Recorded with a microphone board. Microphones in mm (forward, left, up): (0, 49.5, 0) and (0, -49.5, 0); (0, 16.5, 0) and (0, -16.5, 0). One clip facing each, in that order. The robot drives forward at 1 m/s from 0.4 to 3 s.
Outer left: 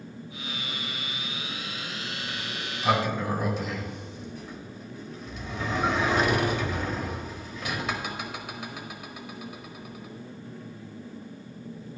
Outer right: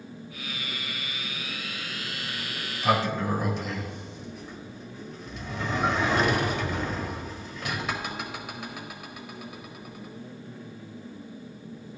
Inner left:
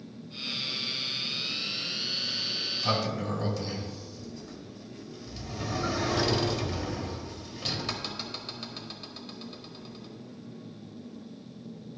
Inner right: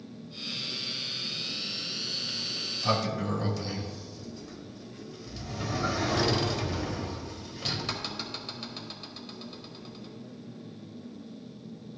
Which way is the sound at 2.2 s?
5° right (ahead or behind).